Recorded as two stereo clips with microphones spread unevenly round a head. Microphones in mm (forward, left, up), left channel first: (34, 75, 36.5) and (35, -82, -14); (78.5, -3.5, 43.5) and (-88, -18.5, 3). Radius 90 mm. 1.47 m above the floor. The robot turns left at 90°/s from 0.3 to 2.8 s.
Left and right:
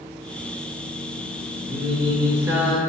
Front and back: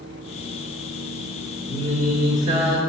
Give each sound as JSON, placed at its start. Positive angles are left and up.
{"t": 1.7, "sound": "singing", "azimuth_deg": -125, "distance_m": 1.1}